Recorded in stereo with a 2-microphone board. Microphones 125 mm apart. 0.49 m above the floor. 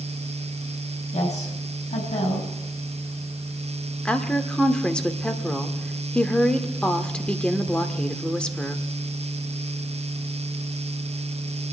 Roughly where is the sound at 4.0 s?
Centre.